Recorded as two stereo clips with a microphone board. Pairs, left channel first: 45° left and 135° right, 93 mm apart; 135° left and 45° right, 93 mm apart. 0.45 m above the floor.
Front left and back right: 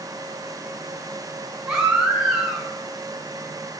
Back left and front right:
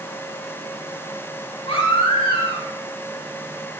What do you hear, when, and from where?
1.7 s a baby crying: 145° left, 4 m